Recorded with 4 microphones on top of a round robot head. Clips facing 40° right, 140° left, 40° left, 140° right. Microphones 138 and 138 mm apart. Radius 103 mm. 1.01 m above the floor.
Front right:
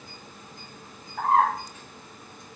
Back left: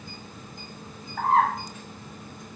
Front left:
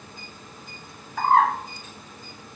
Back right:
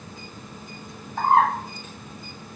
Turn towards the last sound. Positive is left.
turn(degrees=145)